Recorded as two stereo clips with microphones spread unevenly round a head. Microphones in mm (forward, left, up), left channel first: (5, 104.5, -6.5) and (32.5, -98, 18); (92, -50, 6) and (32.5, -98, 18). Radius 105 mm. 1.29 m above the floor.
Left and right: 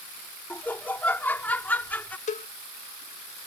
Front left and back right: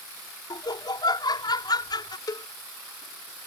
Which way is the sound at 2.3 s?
50° left.